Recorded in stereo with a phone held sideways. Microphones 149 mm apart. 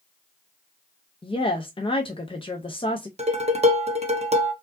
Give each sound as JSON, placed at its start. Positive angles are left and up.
{"t": 1.2, "sound": "a woman speaking", "side_deg": 35, "distance_m": 0.5}
{"t": 3.2, "sound": "dishes clattering", "side_deg": -40, "distance_m": 0.9}